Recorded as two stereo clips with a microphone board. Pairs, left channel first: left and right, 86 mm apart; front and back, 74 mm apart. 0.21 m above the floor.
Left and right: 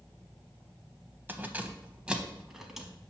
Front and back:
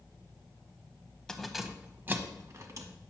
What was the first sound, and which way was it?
Keys jangling, 70° right.